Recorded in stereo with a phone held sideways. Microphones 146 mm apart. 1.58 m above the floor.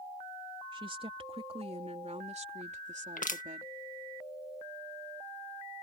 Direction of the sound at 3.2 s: 65° left (ahead or behind).